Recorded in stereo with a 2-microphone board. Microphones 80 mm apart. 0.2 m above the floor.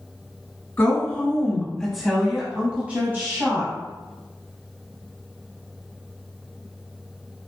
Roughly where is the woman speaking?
Left.